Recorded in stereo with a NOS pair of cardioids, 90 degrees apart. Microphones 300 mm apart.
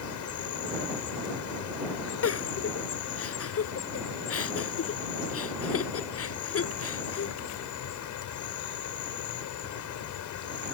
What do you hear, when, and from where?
0.0 s an insect: 70° left
2.2 s a giggle: 50° left